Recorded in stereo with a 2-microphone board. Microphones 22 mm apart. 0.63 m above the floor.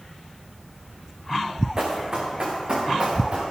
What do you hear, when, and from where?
1.8 s running footsteps: 30° right (ahead or behind), 3 m; by 3.4 s 45° right (ahead or behind), 3.5 m